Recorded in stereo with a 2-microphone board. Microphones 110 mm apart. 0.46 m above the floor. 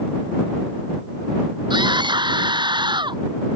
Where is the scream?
40° right (ahead or behind).